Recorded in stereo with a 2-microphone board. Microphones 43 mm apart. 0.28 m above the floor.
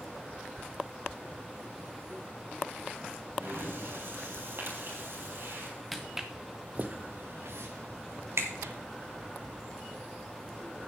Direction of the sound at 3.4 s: 65° right (ahead or behind).